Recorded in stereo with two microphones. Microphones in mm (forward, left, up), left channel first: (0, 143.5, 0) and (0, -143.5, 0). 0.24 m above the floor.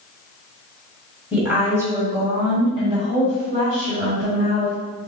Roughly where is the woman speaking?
Centre.